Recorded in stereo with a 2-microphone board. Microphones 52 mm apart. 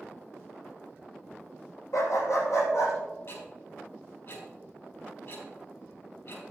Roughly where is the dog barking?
Left.